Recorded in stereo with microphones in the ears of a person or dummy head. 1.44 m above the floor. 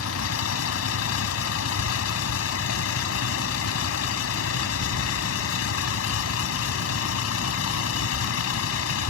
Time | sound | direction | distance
0.0 | a vehicle | 85° left | ?